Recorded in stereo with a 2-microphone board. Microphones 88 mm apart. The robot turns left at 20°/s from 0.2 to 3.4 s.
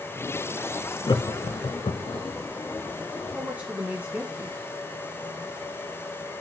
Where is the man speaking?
15° right (ahead or behind), 1.0 m; by 5.7 s 20° right (ahead or behind), 1.0 m.